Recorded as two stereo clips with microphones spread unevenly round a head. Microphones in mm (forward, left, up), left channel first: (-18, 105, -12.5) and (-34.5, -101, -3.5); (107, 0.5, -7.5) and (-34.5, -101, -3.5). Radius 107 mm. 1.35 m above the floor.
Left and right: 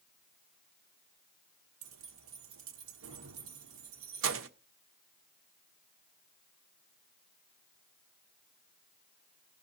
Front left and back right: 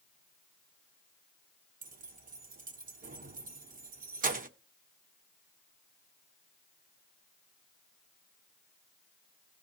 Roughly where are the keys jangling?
Right.